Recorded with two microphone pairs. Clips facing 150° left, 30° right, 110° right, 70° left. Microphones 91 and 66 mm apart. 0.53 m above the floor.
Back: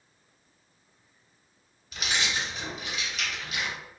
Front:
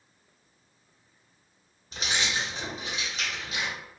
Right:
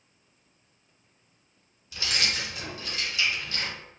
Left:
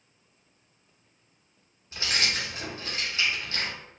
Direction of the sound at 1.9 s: 20° left.